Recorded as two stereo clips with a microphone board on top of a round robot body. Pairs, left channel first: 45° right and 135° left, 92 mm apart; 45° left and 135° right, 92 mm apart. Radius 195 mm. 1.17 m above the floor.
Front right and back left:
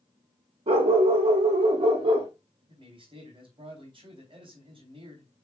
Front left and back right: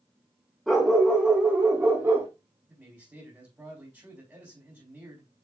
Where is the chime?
I don't hear a chime.